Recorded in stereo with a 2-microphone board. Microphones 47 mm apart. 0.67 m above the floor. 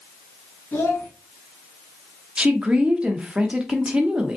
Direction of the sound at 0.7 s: 50° left (ahead or behind).